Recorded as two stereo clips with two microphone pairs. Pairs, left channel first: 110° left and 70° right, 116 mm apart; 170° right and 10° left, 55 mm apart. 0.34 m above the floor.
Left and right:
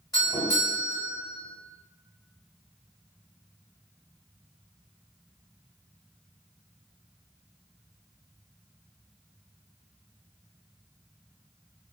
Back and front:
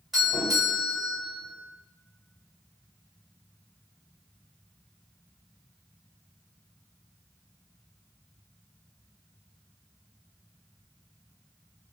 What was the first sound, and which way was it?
A doorbell, 85° left.